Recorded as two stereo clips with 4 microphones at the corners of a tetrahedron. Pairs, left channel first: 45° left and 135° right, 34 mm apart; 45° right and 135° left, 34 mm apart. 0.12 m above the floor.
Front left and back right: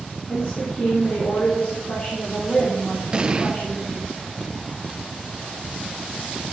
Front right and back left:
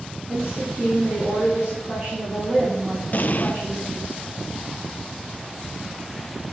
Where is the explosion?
75° right, 0.5 m.